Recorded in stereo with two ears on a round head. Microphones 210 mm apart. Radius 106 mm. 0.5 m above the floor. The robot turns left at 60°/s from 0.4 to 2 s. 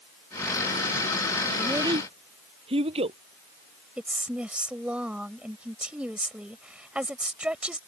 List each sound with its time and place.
1.6 s a child speaking: centre (ahead or behind); by 3.2 s 25° right (ahead or behind)
4.0 s a woman speaking: 5° right (ahead or behind)